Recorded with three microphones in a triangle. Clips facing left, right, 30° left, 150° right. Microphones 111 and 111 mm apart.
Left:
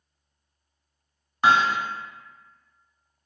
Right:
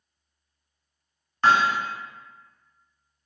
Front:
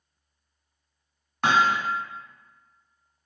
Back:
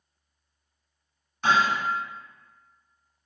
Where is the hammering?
10° left, 1.3 m.